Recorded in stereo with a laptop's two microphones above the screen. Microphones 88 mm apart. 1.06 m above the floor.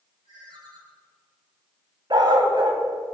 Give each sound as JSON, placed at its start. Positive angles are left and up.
{"t": 0.2, "sound": "a ringtone", "side_deg": -65, "distance_m": 4.5}
{"t": 2.1, "sound": "a dog barking", "side_deg": -60, "distance_m": 3.0}